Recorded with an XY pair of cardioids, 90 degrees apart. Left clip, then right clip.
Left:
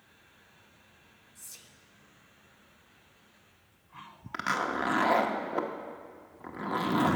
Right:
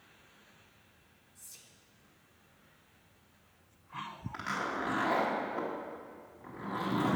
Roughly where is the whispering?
Ahead left.